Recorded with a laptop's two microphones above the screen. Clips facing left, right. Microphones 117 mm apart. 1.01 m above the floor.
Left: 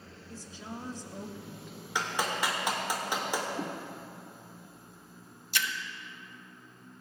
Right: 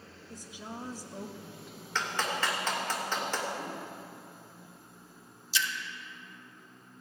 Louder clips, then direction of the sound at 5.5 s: Even; 60° left (ahead or behind).